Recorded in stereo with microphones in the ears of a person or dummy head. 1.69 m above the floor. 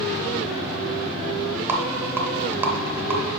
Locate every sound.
1.7 s a rattle: 15° right (ahead or behind), 0.6 m